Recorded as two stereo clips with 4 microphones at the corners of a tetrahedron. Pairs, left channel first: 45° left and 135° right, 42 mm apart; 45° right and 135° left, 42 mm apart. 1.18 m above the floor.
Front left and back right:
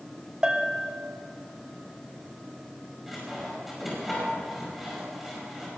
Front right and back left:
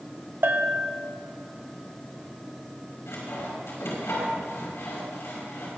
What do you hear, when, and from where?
0.4 s a bell: 155° left, 0.9 m
3.1 s sawing: 50° right, 5 m